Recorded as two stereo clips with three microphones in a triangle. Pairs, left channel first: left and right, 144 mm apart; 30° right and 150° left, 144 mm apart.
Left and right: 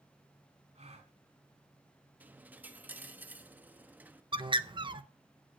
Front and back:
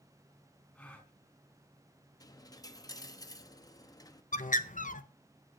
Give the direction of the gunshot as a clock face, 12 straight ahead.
I don't hear a gunshot.